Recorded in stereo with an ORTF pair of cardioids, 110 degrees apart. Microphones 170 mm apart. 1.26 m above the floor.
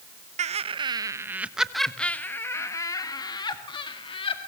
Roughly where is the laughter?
Ahead right.